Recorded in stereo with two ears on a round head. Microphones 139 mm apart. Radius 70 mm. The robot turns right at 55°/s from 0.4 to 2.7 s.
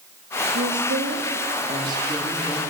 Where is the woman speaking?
105° right, 4 m; by 2.6 s 10° left, 4 m.